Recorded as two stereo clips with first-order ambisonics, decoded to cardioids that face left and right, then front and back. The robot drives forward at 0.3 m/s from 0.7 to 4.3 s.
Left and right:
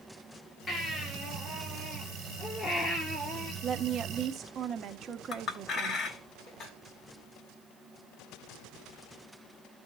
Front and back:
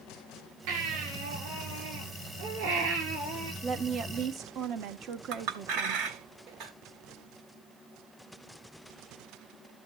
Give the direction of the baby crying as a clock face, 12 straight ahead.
7 o'clock.